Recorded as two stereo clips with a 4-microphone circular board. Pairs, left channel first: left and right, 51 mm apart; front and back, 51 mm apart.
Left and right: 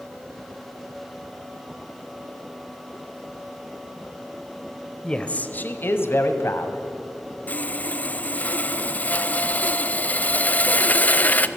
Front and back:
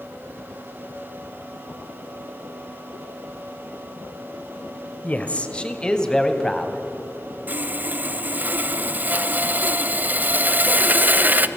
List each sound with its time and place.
5.0 s a man speaking: 30° left, 1.2 m; by 6.8 s 80° left, 2.5 m
7.5 s sawing: 135° left, 0.8 m